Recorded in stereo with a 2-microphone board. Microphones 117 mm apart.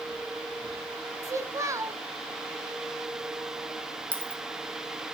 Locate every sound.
1.2 s a child speaking: 25° right (ahead or behind), 1.1 m
4.1 s a dropped coin: 10° left (ahead or behind), 2.5 m